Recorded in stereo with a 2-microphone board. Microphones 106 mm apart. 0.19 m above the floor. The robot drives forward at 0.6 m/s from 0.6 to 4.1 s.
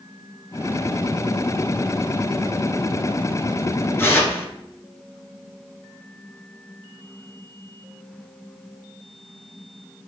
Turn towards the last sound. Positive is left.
turn(degrees=20)  # may be behind; listen again after turning